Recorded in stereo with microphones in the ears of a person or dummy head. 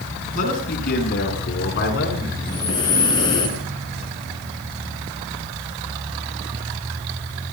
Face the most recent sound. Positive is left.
turn(degrees=25)  # may be behind; listen again after turning